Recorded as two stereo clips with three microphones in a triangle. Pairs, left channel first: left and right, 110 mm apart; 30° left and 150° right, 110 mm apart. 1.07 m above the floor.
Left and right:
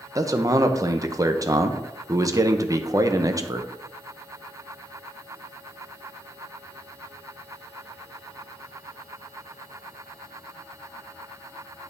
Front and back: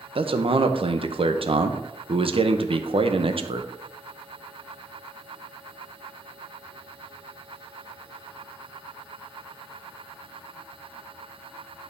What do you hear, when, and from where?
0.1 s a man speaking: 145° right, 0.8 m